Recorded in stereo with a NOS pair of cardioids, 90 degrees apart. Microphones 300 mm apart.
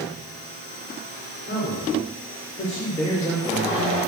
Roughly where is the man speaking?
Ahead left.